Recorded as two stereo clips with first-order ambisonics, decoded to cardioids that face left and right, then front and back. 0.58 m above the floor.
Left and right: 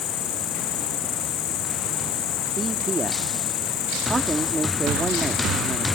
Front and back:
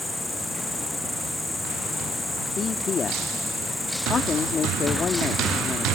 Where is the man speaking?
35° right.